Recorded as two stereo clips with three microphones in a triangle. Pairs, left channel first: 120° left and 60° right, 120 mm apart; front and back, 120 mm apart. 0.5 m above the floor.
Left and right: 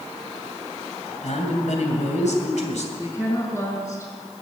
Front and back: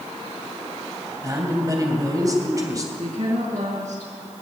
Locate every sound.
1.2 s a man speaking: 120° left, 2.5 m
3.0 s a woman speaking: 175° right, 5 m